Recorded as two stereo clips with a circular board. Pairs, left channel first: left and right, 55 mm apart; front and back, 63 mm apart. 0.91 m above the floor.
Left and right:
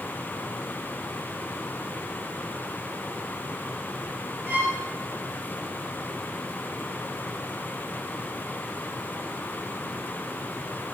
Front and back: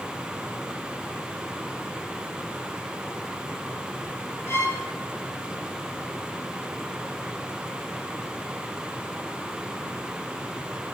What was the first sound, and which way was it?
A violin, 40° right.